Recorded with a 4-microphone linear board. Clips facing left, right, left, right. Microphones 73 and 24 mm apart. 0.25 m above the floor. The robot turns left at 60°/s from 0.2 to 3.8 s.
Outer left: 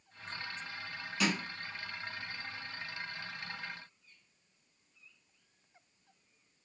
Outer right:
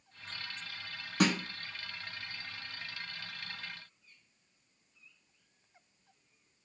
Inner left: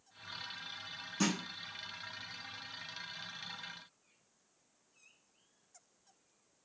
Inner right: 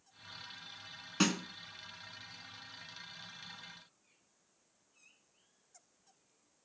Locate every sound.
1.2 s a snare drum: 60° right (ahead or behind), 0.6 m; by 1.4 s 50° right (ahead or behind), 0.6 m